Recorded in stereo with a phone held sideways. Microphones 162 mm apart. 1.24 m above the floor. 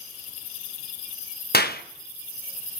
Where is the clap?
75° left (ahead or behind), 1.0 m.